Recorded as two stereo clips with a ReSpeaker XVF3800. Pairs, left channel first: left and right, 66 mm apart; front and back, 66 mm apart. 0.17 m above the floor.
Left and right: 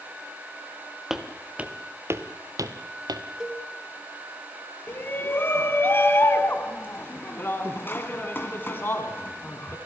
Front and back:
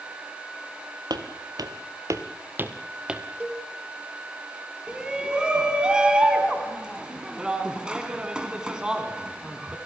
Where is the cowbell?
145° right, 1.2 m.